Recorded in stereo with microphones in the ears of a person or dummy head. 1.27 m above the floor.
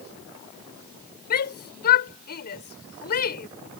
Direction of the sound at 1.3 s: 50° left (ahead or behind).